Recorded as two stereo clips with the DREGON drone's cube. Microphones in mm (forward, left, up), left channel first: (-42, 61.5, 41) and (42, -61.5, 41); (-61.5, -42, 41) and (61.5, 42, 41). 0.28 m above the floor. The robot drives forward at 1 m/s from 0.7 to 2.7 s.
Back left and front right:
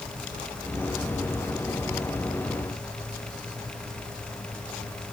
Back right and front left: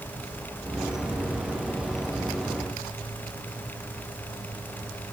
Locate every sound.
Only background noise.